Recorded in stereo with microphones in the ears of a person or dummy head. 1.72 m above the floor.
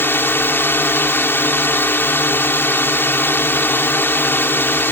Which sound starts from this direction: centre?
A drone, at 0.0 s.